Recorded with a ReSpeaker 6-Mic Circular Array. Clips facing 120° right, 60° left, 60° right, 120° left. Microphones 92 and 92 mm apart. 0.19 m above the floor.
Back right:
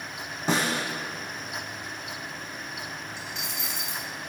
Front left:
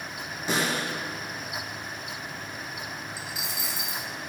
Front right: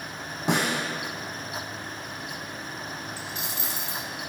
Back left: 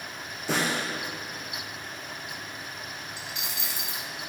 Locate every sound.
0.5 s a snare drum: 65° right, 2 m
3.2 s a dropped coin: 25° right, 0.8 m